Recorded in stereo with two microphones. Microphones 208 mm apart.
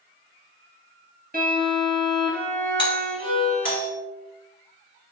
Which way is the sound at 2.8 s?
20° left (ahead or behind).